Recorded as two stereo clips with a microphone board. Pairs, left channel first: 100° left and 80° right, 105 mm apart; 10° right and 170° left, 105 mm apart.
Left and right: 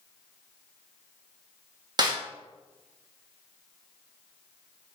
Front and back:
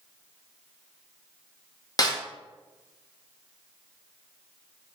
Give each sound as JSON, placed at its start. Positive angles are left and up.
{"t": 2.0, "sound": "a snare drum", "azimuth_deg": -45, "distance_m": 0.6}